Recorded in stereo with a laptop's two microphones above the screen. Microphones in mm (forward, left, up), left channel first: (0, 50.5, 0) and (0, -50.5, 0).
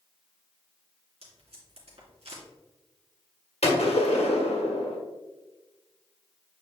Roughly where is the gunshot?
Left.